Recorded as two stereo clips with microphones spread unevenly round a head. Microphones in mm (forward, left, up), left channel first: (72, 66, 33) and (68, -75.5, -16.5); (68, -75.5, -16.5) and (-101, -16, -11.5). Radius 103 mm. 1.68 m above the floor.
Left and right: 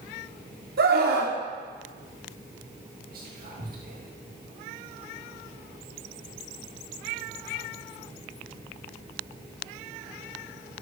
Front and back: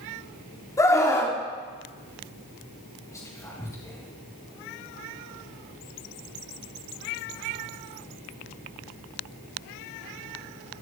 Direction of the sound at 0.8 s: 90° right.